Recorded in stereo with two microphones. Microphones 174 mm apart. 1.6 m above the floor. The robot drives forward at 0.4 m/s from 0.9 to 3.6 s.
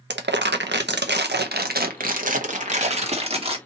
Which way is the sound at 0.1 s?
85° right.